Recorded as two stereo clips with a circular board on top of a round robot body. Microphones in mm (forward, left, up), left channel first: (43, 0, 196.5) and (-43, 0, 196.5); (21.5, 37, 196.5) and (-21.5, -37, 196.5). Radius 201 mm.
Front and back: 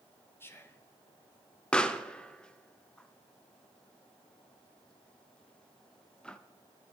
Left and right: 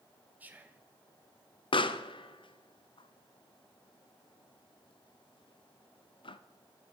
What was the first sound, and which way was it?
Whispering, 55° right.